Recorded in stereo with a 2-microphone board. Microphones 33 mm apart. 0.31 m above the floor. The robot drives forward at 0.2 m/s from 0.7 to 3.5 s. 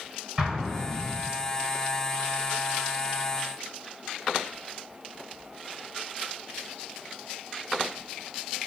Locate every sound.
0.4 s an explosion: 10° right (ahead or behind), 1.5 m